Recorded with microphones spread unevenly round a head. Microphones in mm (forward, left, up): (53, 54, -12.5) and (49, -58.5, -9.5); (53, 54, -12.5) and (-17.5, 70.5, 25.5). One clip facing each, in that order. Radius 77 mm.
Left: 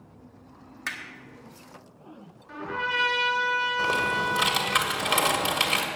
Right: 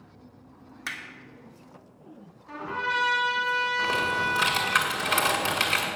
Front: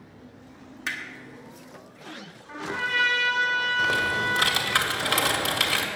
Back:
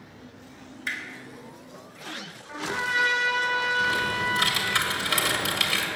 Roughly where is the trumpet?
Right.